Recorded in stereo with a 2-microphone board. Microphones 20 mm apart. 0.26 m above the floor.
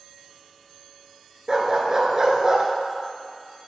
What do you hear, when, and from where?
1.5 s a dog barking: 35° right (ahead or behind), 1.1 m